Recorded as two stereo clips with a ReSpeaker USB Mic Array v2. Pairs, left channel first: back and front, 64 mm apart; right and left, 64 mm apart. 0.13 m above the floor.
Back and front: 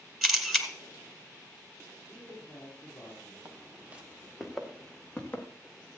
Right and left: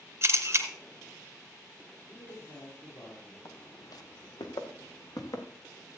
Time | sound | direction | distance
0.2 | a camera shutter | 85° left | 2 m
2.1 | a man speaking | 115° right | 5.5 m
3.5 | footsteps | 55° right | 2 m